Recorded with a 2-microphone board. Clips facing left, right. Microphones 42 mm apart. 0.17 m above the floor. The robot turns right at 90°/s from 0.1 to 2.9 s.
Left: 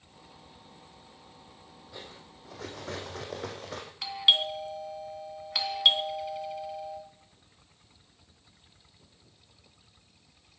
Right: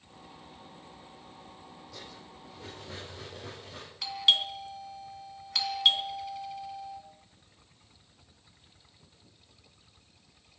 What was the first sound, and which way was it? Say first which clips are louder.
Cutlery clinking: left 3 dB; 20° left.